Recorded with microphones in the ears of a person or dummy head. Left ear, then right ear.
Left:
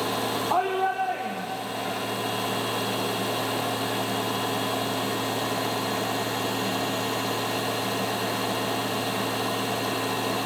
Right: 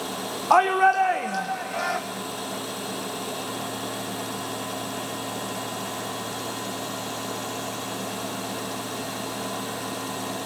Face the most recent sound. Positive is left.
turn(degrees=-60)  # may be behind; listen again after turning